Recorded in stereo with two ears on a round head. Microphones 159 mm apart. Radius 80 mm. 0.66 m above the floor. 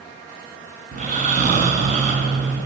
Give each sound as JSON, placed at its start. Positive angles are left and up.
{"t": 0.9, "sound": "snoring", "side_deg": -45, "distance_m": 5.0}